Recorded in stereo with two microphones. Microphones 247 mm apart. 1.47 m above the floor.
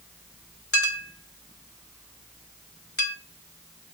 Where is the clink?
60° left (ahead or behind), 1.6 m.